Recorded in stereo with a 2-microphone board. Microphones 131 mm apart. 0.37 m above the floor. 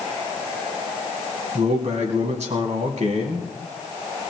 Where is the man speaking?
70° right (ahead or behind), 3 m.